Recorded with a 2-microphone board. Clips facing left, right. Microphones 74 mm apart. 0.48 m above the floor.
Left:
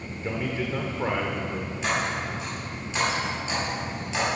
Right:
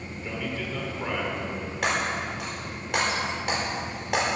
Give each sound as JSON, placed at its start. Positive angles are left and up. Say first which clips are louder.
{"t": 0.2, "sound": "a man speaking", "louder": "left 4 dB", "side_deg": 30, "distance_m": 1.2}
{"t": 1.8, "sound": "breaking glass", "louder": "right 1 dB", "side_deg": -65, "distance_m": 4.5}